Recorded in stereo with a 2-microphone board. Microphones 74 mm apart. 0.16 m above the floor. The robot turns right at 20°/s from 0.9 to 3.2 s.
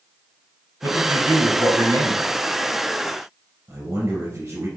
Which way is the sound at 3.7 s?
50° right (ahead or behind).